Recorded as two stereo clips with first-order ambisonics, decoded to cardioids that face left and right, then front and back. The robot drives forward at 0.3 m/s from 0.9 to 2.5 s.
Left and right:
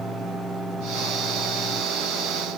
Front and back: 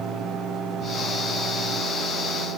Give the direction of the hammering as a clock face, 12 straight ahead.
No hammering in this recording.